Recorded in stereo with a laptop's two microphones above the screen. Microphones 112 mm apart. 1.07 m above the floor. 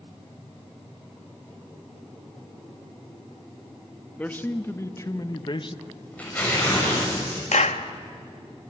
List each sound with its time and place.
4.2 s a man speaking: 15° left (ahead or behind), 1.3 m; by 5.8 s 50° left (ahead or behind), 0.8 m
5.8 s tearing paper: 15° left (ahead or behind), 6.5 m
7.5 s a clap: 85° left, 1.1 m